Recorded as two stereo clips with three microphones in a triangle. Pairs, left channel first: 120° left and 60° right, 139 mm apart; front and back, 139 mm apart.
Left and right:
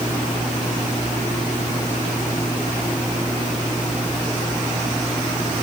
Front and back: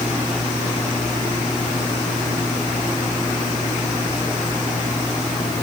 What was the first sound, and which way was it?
Only background noise.